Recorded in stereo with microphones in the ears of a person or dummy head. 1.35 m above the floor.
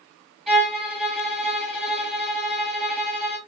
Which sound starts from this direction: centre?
A violin, at 0.5 s.